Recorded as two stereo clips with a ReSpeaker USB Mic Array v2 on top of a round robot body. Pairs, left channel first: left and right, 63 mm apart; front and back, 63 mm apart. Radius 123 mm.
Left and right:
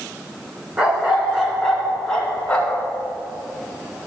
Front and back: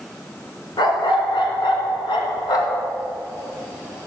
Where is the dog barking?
15° right, 2.5 m; by 2.9 s 20° left, 2.5 m.